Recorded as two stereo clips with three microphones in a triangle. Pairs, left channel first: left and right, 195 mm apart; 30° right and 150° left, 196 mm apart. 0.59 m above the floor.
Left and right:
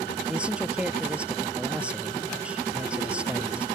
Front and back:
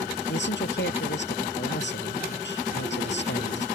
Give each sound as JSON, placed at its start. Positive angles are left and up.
{"t": 0.3, "sound": "a man speaking", "azimuth_deg": -5}